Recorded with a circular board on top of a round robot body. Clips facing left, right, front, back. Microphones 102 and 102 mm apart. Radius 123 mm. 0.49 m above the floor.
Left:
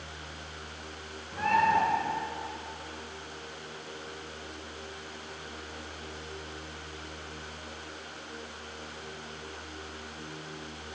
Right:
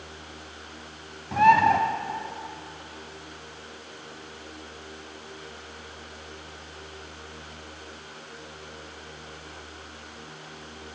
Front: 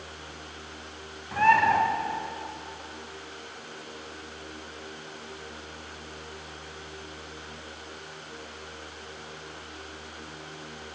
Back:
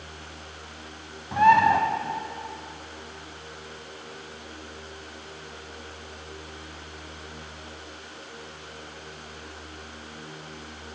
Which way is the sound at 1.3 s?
105° right.